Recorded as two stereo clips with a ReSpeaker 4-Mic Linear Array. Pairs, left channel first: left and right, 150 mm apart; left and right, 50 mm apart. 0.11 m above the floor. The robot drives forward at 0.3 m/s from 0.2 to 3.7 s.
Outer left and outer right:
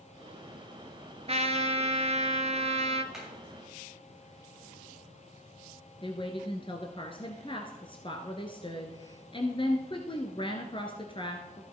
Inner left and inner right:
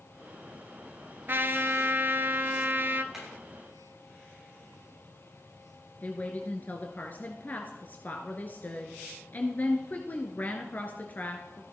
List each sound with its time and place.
1.3 s a trumpet: 45° right (ahead or behind), 1.0 m
3.1 s hammering: 5° right (ahead or behind), 8 m
6.0 s a woman speaking: 35° left (ahead or behind), 1.6 m